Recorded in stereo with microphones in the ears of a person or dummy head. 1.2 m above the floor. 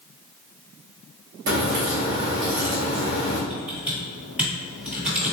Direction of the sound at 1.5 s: 45° right (ahead or behind).